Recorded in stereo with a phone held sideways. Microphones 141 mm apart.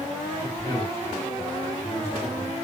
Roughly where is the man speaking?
Centre.